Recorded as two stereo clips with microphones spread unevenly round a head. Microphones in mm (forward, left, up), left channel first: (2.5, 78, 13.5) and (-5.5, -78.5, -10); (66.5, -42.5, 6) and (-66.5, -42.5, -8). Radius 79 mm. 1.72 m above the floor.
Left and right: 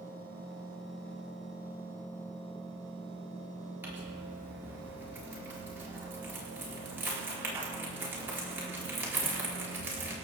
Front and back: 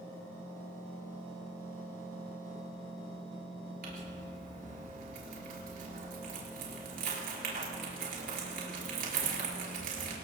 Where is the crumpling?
170° right, 5 m.